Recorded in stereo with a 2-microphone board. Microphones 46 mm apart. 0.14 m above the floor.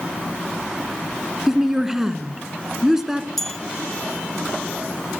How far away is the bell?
About 0.9 m.